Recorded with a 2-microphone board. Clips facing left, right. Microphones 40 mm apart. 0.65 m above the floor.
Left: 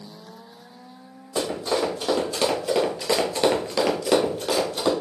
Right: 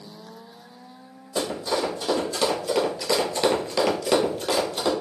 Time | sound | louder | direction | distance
1.4 | running footsteps | left 1 dB | 25° left (ahead or behind) | 1.6 m